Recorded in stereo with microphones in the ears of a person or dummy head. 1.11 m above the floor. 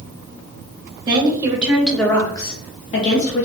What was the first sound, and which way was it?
A woman speaking, 25° right (ahead or behind).